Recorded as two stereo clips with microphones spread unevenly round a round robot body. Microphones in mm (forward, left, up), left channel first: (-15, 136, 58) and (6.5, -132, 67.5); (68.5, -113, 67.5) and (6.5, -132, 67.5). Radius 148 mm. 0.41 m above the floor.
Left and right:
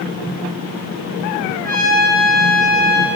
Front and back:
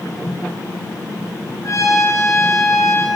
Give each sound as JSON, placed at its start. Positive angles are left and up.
{"t": 1.6, "sound": "a trumpet", "azimuth_deg": -25, "distance_m": 7.5}